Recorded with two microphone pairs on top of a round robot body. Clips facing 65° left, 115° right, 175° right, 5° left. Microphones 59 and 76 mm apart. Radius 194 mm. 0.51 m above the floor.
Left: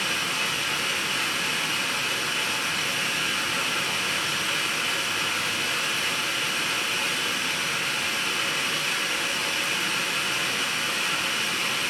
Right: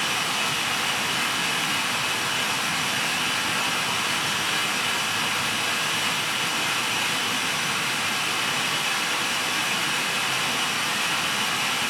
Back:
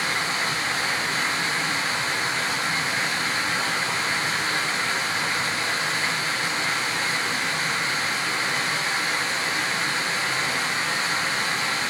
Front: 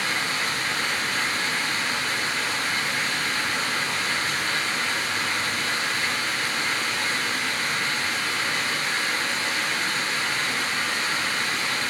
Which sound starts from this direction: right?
Running water, at 0.0 s.